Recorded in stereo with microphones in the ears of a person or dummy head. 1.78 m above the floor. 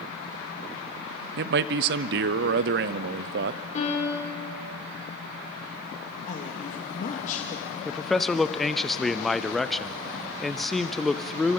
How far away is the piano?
About 5 m.